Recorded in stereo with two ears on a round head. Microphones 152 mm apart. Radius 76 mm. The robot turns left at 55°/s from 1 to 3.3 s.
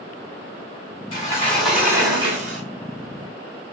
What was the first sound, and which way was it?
A sliding door, 30° left.